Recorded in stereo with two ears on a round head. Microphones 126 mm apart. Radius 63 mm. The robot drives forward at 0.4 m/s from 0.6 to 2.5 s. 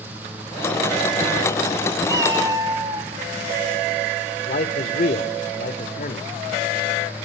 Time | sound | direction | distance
2.1 | a cat meowing | 25° right (ahead or behind) | 1.6 m
4.5 | a man speaking | 60° left (ahead or behind) | 1.6 m